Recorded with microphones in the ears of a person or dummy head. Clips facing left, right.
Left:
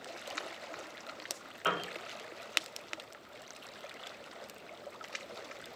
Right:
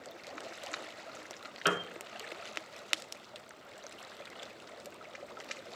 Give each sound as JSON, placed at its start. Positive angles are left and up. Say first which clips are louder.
{"t": 1.6, "sound": "a piano", "louder": "right 2 dB", "side_deg": -30, "distance_m": 0.7}